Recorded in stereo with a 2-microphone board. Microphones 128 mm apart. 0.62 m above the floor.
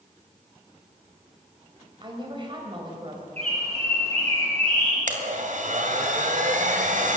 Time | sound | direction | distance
2.0 | a woman speaking | 35° right (ahead or behind) | 3.5 m
3.4 | a bird | 50° right (ahead or behind) | 8 m
5.1 | a blender | 70° right (ahead or behind) | 2.5 m